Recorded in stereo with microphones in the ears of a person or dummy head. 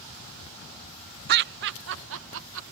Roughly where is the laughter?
Right.